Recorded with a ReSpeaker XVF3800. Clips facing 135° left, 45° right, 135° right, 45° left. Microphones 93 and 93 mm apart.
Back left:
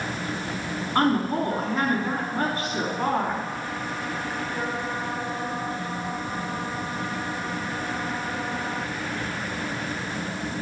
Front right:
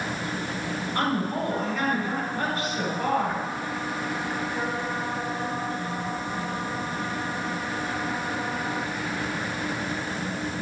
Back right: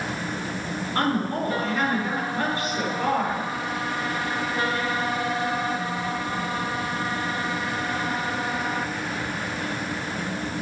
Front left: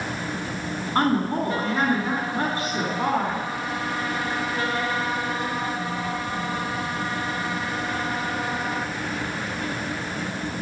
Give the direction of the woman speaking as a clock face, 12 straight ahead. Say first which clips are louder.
Back left 5 dB, front left 3 dB; 9 o'clock.